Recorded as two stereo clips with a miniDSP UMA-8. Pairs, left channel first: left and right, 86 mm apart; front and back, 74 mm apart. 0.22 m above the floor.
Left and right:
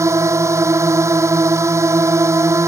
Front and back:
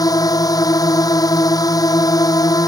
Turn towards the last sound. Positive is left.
turn(degrees=-35)